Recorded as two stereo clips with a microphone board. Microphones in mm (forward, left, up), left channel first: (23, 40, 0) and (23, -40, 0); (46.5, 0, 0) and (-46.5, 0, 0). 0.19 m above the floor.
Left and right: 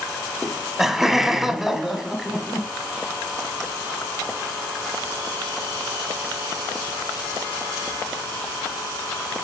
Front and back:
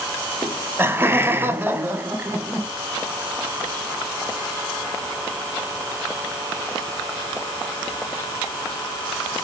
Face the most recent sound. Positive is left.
turn(degrees=-165)